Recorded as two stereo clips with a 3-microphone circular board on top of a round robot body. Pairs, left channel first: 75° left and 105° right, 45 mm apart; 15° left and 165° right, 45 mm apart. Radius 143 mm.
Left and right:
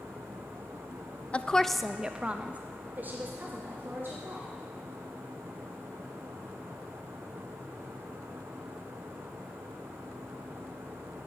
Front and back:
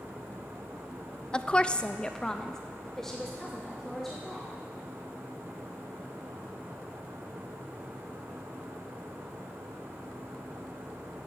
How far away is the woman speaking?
About 0.5 m.